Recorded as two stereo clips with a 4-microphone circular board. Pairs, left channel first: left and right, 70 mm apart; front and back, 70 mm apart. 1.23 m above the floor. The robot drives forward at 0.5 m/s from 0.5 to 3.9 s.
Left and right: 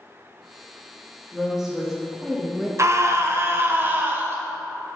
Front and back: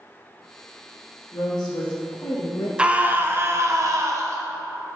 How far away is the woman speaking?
About 2 m.